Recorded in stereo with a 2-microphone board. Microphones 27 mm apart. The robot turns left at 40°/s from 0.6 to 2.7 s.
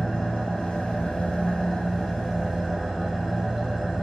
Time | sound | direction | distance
0.0 | an engine running | 70° left | 0.8 m